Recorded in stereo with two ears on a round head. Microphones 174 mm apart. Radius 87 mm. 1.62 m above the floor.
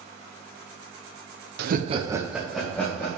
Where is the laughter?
55° right (ahead or behind), 0.8 m; by 3.2 s 15° left (ahead or behind), 2.5 m.